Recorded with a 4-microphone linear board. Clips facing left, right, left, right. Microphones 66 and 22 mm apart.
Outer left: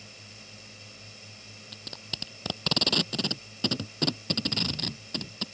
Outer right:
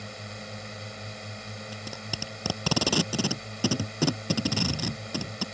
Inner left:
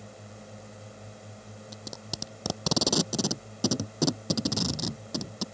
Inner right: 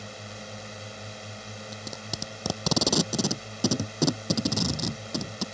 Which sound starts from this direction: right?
A drone, at 0.0 s.